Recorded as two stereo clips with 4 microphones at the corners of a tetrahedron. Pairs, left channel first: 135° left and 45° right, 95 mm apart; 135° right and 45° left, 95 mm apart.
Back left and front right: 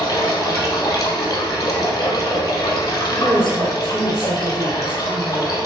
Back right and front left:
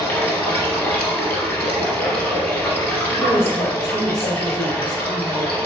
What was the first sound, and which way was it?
Running water, 165° left.